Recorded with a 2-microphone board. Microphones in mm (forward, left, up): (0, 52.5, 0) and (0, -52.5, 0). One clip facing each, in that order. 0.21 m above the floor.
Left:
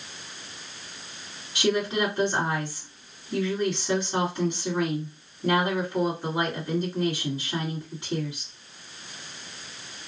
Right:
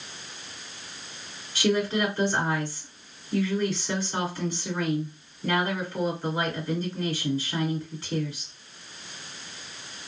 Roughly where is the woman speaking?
Centre.